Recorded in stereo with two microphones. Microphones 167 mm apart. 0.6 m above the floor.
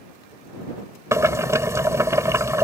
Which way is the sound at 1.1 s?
15° right (ahead or behind).